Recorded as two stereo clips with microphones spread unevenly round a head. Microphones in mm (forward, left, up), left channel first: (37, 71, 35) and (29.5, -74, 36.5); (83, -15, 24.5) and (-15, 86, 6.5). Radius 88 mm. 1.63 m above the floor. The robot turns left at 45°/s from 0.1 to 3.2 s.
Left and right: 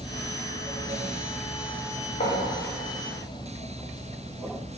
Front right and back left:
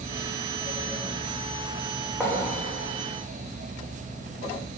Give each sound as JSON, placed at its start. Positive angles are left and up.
{"t": 2.2, "sound": "writing", "azimuth_deg": 45, "distance_m": 2.5}